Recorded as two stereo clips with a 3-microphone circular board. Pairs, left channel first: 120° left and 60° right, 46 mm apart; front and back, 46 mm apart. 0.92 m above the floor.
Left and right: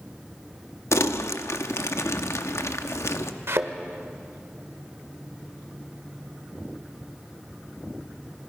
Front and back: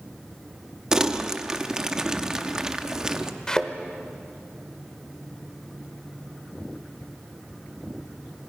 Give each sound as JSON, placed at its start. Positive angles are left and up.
{"t": 0.9, "sound": "crumpling", "azimuth_deg": 105, "distance_m": 0.8}
{"t": 3.5, "sound": "a thud", "azimuth_deg": -75, "distance_m": 1.2}